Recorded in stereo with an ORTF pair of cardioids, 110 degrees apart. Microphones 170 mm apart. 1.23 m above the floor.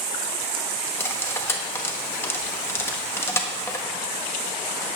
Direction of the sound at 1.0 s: 15° left.